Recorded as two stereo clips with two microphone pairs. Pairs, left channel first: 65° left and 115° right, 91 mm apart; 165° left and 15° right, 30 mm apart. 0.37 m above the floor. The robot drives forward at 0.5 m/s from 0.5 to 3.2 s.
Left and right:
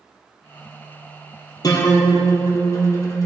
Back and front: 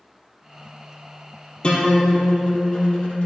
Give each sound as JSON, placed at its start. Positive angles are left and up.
{"t": 1.6, "sound": "a guitar", "azimuth_deg": 110, "distance_m": 4.0}